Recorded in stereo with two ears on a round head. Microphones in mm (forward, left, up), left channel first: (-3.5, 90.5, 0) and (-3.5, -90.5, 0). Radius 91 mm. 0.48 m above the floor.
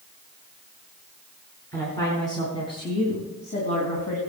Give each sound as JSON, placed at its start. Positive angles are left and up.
{"t": 1.7, "sound": "a woman speaking", "side_deg": 15, "distance_m": 4.5}